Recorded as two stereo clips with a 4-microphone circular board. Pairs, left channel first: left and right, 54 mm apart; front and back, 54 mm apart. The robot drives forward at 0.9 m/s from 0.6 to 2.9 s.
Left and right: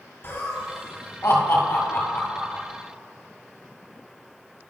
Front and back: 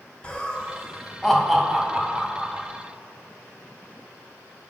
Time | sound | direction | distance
0.2 | laughter | 60° left | 1.9 m